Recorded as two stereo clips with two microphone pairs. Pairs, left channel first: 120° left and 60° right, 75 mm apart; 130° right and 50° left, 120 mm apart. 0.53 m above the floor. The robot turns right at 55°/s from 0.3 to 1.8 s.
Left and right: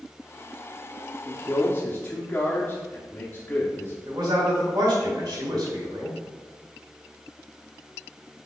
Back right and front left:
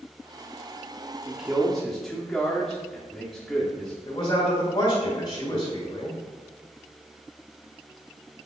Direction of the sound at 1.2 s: 105° left.